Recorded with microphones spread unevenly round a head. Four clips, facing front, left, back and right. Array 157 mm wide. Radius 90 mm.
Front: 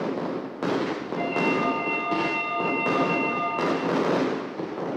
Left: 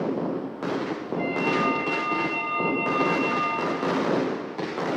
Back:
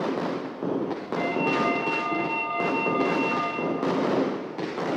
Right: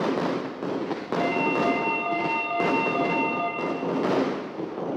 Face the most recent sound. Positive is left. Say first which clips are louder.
# right 1 dB, even
turn(degrees=-85)